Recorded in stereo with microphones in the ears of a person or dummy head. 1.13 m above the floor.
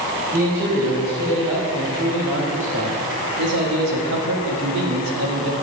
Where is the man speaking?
20° right (ahead or behind), 3.5 m; by 5.5 s 70° right (ahead or behind), 2 m.